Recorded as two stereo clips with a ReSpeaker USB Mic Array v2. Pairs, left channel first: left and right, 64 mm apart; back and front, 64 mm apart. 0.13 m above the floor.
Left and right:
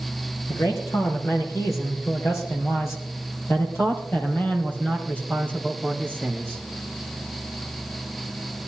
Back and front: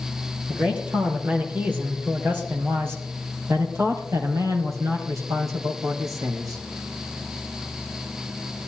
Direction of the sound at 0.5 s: 70° left.